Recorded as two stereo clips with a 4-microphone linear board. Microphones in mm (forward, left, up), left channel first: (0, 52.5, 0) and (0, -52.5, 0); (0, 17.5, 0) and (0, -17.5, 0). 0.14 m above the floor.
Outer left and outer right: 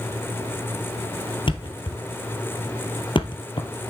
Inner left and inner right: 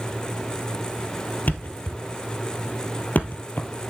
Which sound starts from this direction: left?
A thud, at 1.5 s.